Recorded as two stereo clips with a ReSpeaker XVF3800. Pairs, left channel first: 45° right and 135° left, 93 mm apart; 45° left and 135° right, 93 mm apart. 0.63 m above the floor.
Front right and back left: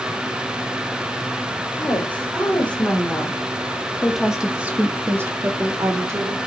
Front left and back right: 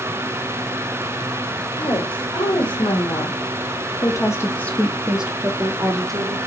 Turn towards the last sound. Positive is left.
turn(degrees=-175)